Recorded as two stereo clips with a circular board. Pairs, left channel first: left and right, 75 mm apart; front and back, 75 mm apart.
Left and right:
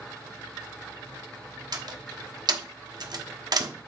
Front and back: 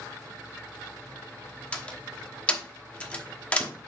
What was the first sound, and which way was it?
A door slam, 75° right.